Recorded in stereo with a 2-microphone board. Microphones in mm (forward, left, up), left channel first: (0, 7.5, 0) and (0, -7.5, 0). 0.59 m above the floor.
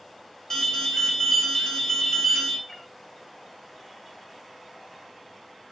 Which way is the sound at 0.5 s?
25° left (ahead or behind).